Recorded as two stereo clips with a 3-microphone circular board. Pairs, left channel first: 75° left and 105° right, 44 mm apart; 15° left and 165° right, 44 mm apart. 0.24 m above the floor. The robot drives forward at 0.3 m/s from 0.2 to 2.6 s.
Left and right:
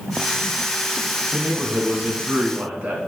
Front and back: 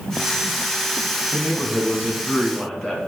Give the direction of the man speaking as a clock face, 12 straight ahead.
2 o'clock.